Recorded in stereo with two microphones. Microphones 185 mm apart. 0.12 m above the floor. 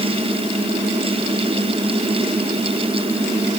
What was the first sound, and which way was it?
Only background noise.